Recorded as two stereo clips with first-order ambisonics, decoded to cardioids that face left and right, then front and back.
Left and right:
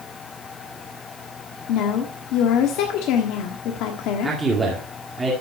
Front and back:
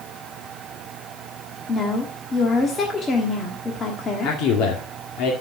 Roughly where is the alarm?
I don't hear an alarm.